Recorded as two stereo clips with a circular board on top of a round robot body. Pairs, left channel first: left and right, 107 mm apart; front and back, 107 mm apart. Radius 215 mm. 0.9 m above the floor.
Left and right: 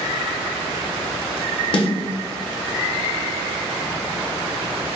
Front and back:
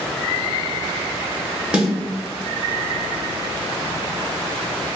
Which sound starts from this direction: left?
A snare drum, at 1.7 s.